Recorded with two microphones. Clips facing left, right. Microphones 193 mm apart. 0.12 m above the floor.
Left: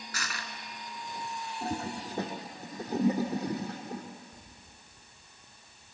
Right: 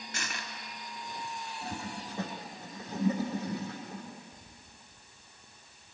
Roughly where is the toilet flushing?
Left.